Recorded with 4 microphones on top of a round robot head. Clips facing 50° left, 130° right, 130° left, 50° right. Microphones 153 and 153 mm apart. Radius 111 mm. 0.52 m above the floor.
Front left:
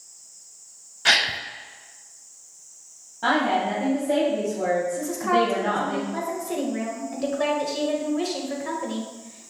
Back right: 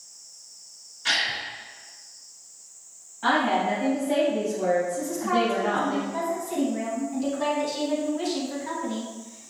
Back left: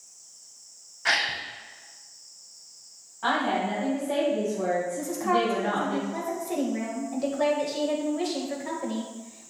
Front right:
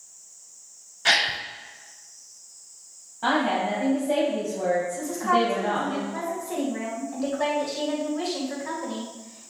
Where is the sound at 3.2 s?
5° left, 3.5 m.